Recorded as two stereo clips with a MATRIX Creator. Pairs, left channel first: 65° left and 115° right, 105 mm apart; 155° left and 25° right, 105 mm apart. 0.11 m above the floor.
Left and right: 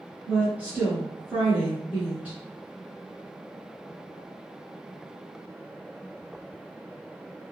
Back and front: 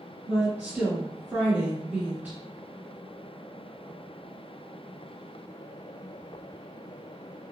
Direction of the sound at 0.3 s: 65° right.